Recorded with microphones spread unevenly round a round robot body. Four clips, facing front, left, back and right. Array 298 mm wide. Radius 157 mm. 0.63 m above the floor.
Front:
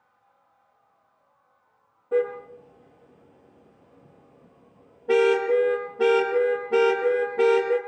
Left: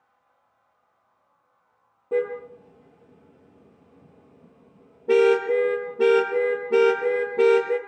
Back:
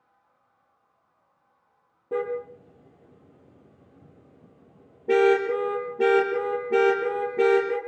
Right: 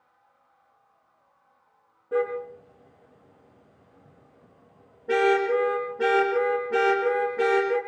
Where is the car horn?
150° left, 4 m.